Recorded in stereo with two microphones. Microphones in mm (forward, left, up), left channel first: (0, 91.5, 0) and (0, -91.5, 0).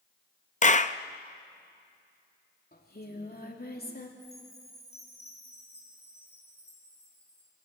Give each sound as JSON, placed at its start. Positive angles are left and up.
{"t": 0.6, "sound": "a clap", "side_deg": 40, "distance_m": 0.6}
{"t": 2.7, "sound": "singing", "side_deg": 55, "distance_m": 2.5}
{"t": 4.2, "sound": "a chime", "side_deg": 35, "distance_m": 8.0}